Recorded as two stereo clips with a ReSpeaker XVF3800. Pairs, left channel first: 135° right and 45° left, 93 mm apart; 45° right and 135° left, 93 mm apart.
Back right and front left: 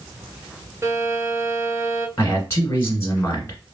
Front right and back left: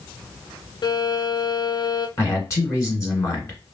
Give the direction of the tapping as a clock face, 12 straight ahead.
No tapping in this recording.